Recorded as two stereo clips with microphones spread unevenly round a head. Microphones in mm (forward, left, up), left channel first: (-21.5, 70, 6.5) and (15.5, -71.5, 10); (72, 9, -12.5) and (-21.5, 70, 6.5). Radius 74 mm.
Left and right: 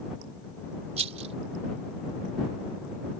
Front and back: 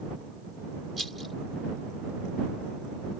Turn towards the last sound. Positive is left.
turn(degrees=-125)